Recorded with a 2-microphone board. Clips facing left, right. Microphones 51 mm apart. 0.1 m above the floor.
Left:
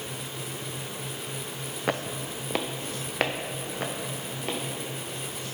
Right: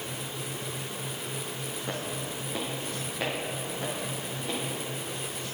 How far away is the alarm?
I don't hear an alarm.